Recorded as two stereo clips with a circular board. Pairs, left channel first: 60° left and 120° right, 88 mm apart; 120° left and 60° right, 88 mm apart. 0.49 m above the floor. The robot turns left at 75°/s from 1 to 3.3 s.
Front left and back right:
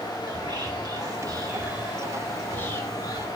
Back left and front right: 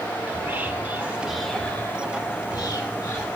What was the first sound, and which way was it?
Whispering, 120° right.